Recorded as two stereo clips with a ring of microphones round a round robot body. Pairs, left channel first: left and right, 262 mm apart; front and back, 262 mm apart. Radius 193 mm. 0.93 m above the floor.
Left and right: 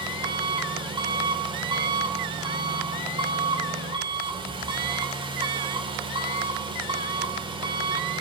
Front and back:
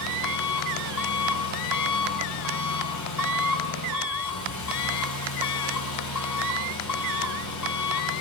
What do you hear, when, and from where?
0.0 s an engine running: 15° right, 3 m